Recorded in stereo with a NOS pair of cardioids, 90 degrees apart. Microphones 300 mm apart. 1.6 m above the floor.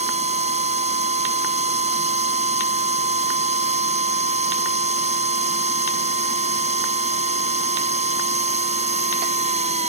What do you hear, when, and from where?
0.0 s a machine running: 20° right